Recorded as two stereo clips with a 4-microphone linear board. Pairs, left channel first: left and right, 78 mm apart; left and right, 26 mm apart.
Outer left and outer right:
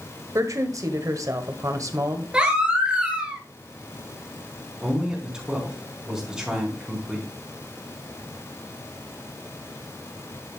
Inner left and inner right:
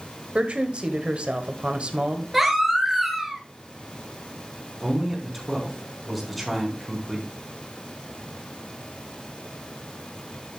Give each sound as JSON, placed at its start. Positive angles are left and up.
{"t": 0.3, "sound": "a woman speaking", "side_deg": -45, "distance_m": 1.5}
{"t": 2.3, "sound": "a baby crying", "side_deg": -10, "distance_m": 2.5}
{"t": 4.8, "sound": "a man speaking", "side_deg": -10, "distance_m": 4.5}